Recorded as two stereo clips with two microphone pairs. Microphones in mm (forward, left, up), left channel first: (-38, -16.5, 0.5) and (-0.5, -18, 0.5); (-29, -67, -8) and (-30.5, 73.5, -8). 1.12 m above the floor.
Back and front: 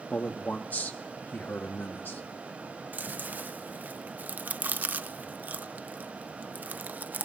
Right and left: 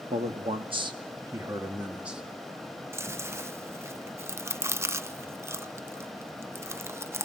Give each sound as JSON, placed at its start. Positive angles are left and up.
{"t": 0.1, "sound": "a man speaking", "azimuth_deg": 125, "distance_m": 1.7}
{"t": 2.9, "sound": "chewing", "azimuth_deg": 25, "distance_m": 0.6}